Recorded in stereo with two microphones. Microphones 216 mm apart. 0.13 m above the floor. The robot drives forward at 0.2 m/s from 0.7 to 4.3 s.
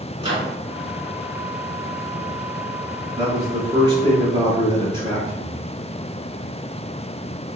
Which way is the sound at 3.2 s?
20° right (ahead or behind).